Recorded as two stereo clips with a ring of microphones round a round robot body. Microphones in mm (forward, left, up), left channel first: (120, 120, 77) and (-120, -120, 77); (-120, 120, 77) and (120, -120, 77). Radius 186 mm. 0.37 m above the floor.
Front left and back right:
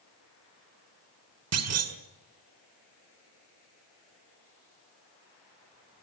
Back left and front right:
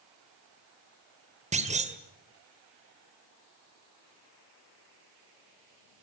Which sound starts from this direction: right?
A clunk, at 1.5 s.